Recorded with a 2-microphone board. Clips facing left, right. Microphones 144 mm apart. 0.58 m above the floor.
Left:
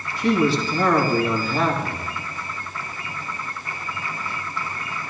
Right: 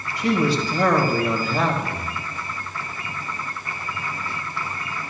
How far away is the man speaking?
About 2.5 m.